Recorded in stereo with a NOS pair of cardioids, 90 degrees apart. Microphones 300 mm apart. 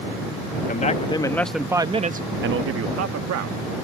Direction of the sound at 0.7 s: 30° left.